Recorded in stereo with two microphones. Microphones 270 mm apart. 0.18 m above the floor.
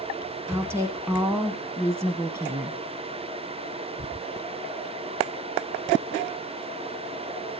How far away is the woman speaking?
About 1.2 m.